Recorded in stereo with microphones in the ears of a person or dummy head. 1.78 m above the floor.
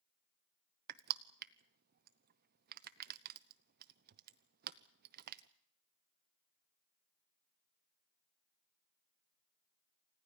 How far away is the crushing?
About 0.8 m.